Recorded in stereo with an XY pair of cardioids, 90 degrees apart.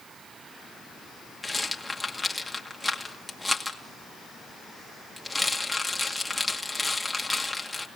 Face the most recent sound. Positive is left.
turn(degrees=5)